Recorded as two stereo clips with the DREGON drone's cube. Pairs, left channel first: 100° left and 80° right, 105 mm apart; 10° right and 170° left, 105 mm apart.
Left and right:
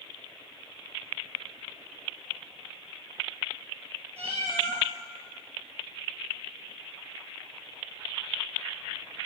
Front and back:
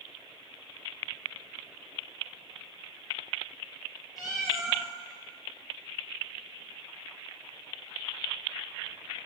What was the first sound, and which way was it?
A cat meowing, 100° right.